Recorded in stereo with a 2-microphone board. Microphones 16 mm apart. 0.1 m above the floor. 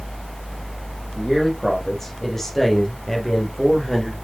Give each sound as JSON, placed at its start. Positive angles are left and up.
{"t": 1.1, "sound": "a man speaking", "side_deg": 25, "distance_m": 4.0}